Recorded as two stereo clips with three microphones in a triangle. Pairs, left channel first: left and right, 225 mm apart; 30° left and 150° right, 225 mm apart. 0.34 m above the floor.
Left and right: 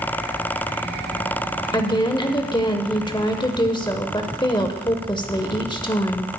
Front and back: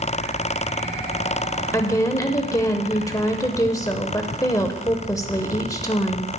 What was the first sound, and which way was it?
A woman speaking, 75° left.